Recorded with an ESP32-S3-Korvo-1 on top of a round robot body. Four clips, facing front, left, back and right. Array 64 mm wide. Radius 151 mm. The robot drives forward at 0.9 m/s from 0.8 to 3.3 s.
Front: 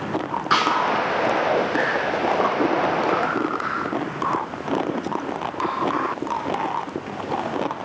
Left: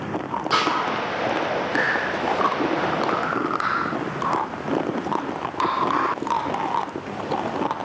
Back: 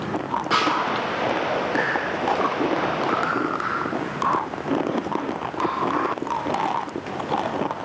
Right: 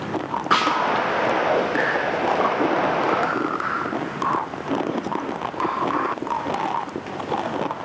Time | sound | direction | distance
0.5 | a snare drum | 55° right | 2.5 m